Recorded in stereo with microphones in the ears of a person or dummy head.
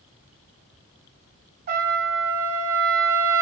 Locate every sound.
1.7 s a trumpet: 45° right (ahead or behind), 1.0 m